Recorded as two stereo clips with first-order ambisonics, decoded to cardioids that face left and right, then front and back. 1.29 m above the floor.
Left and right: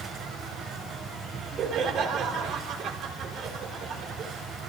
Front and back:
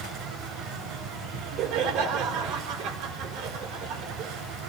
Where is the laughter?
150° right, 4 m.